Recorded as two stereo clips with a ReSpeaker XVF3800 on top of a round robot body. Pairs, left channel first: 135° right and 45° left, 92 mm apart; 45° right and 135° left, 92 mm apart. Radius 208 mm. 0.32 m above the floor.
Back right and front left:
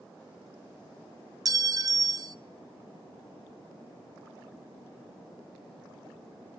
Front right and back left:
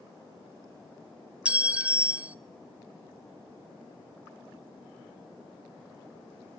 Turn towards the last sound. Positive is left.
turn(degrees=65)